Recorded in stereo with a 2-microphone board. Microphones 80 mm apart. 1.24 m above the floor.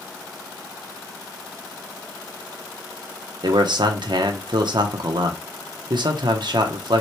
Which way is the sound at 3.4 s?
70° right (ahead or behind).